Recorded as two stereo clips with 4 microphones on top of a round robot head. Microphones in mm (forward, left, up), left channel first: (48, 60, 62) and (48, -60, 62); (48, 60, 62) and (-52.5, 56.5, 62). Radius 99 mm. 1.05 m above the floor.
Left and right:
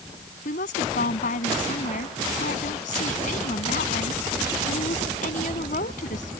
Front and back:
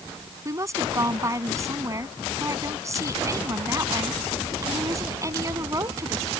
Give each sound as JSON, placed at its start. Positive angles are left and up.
{"t": 0.5, "sound": "a woman speaking", "azimuth_deg": 125}